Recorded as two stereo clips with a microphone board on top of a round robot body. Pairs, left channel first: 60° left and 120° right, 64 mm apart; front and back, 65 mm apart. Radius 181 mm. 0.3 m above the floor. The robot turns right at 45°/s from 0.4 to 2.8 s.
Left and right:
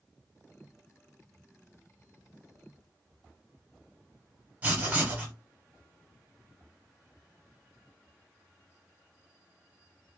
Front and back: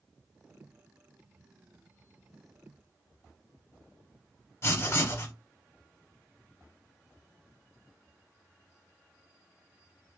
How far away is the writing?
About 0.9 m.